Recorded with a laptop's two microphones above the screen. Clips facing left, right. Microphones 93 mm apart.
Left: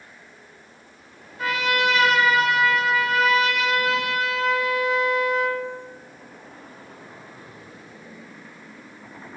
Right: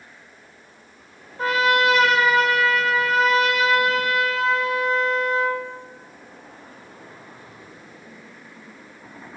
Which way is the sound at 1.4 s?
35° right (ahead or behind).